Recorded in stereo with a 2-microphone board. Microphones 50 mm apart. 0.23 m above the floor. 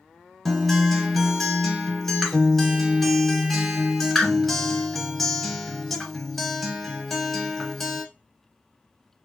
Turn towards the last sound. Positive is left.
turn(degrees=5)  # may be behind; listen again after turning